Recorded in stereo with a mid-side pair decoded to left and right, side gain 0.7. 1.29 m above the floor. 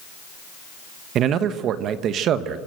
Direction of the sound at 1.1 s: 50° right.